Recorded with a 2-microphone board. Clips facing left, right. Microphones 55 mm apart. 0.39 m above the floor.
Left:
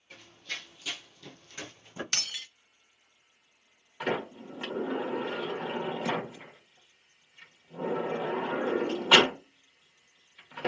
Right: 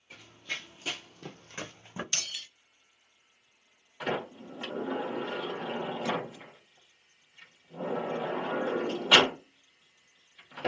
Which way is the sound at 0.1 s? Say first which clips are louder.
Right 2 dB; 10° right (ahead or behind).